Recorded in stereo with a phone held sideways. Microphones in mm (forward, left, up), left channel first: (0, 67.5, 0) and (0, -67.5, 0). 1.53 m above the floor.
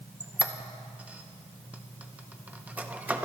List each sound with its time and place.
0.2 s a squeak: 10° right (ahead or behind), 0.7 m